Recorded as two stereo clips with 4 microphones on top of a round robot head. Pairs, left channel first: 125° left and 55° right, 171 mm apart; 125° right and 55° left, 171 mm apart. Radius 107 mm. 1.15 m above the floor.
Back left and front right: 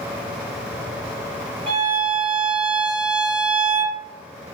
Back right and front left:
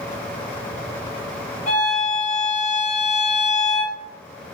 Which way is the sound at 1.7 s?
100° right.